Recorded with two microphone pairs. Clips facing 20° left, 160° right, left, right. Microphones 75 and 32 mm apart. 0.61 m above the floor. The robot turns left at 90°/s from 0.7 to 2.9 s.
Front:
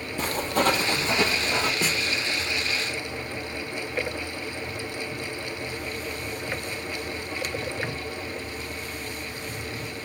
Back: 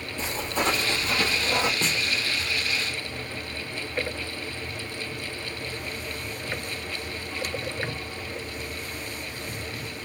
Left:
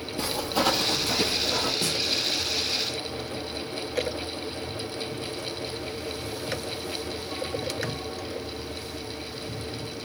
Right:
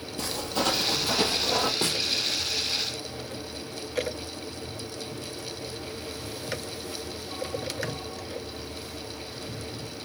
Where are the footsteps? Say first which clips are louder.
Front 4 dB, left 3 dB; 25° left, 1.1 m; by 1.7 s 100° right, 1.5 m.